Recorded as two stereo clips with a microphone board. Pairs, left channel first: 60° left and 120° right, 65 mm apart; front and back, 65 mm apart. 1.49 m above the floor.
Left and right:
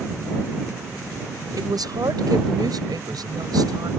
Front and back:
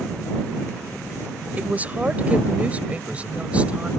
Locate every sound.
1.6 s a woman speaking: 115° right; by 3.9 s 110° right